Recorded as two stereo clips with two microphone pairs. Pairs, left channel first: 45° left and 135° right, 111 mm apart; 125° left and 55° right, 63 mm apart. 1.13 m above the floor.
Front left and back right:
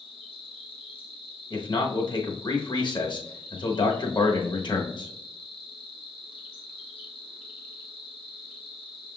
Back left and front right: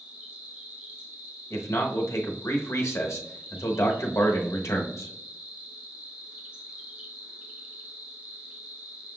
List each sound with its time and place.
0.0 s an insect: 20° left, 1.0 m
1.5 s a man speaking: 90° left, 1.0 m